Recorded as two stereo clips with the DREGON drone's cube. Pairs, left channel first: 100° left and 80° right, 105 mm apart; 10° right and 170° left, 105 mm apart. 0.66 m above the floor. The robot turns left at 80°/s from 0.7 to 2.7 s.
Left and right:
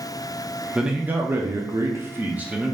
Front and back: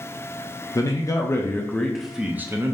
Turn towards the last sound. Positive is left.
turn(degrees=-155)